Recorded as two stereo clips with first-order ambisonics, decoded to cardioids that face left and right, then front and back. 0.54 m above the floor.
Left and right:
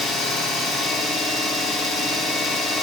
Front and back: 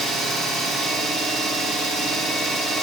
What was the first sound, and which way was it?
An engine running, 135° left.